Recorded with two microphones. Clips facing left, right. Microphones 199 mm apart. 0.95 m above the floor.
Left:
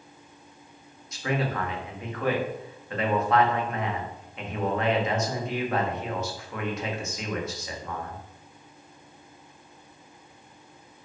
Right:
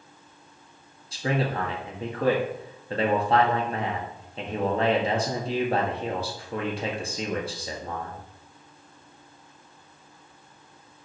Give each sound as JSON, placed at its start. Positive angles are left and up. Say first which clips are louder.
{"t": 1.1, "sound": "a man speaking", "louder": "right 2 dB", "side_deg": -35, "distance_m": 1.8}